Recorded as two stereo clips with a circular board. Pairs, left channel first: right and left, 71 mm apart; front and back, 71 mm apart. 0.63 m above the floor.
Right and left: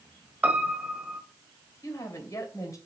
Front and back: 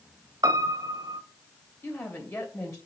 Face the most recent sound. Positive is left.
turn(degrees=-45)